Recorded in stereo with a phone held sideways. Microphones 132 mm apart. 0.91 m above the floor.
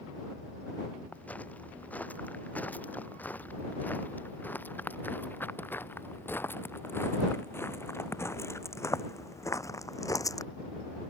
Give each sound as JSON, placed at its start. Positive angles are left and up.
{"t": 1.1, "sound": "footsteps", "side_deg": 10}